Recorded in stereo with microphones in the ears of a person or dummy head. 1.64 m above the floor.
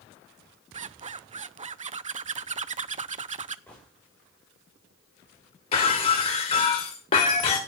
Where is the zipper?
35° right (ahead or behind), 0.6 m.